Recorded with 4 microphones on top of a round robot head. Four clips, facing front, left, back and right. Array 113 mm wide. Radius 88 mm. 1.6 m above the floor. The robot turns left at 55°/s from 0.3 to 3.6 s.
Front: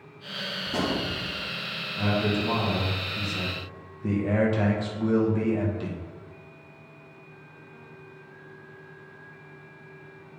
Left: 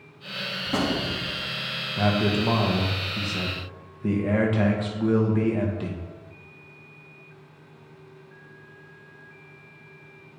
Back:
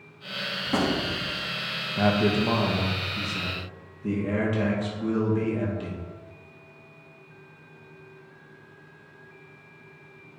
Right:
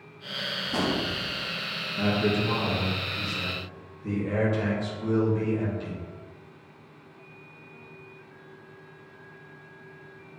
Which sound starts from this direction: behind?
A gunshot, at 0.7 s.